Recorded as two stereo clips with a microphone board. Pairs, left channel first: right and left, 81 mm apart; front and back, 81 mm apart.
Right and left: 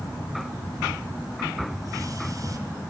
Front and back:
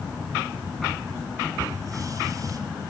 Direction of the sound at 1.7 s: 135° left.